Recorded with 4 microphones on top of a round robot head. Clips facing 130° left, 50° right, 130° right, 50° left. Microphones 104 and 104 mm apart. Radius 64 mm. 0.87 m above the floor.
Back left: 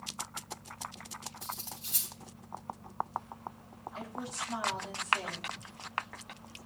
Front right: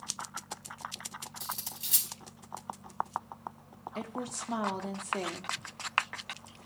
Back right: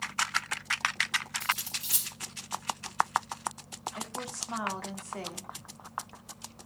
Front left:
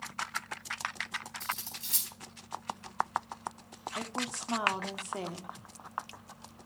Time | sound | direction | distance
1.4 | cutlery clinking | 50° right | 4 m
4.0 | a woman speaking | 20° right | 2 m